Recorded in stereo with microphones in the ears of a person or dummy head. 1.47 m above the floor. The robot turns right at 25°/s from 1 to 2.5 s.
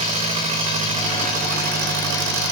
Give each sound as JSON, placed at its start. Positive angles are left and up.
{"t": 0.0, "sound": "an engine running", "azimuth_deg": -145, "distance_m": 1.5}